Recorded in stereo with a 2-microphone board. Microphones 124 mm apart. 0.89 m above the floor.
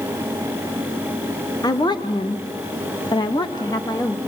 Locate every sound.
1.6 s a woman speaking: 30° left (ahead or behind), 1.2 m; by 4.2 s 25° left (ahead or behind), 1.3 m